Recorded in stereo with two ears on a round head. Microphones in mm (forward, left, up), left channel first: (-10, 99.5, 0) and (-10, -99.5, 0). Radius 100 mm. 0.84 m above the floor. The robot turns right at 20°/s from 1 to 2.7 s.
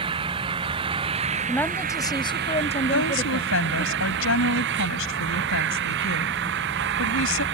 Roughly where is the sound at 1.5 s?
Centre.